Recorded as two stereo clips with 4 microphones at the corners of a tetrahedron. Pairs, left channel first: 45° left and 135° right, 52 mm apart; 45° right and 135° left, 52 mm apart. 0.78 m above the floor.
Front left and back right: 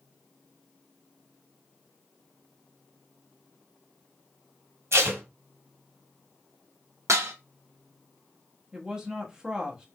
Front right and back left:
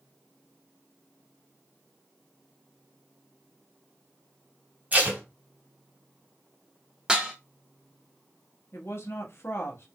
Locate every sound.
4.9 s tape being pulled: 165° right, 1.6 m
7.1 s dishes clattering: 150° right, 1.1 m
8.7 s a woman speaking: 60° right, 1.3 m